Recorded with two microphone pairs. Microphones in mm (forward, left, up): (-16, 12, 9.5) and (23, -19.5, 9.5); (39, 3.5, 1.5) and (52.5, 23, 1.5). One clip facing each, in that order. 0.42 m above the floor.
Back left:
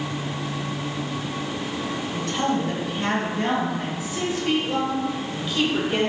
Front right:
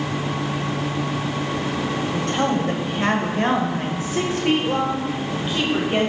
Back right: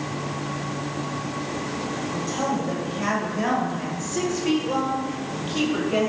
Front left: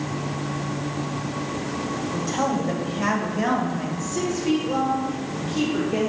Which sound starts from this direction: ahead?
A woman speaking, at 2.1 s.